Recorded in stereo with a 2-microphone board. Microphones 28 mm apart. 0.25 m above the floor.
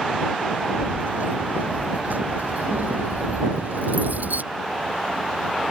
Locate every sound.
0.8 s keys jangling: 85° right; by 4.4 s 80° right